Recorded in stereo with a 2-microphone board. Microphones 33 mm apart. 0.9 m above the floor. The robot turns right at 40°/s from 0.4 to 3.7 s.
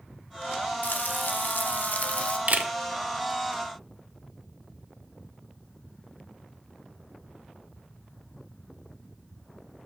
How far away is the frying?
About 0.8 m.